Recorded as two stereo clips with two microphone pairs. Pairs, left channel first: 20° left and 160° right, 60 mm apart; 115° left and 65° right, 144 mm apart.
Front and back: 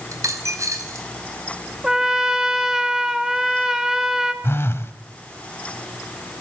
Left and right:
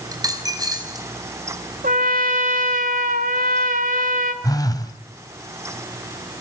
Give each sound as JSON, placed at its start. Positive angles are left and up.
{"t": 0.1, "sound": "a dropped coin", "azimuth_deg": -130, "distance_m": 4.5}
{"t": 1.8, "sound": "a trumpet", "azimuth_deg": -80, "distance_m": 2.5}
{"t": 4.4, "sound": "a phone buzzing", "azimuth_deg": 60, "distance_m": 2.0}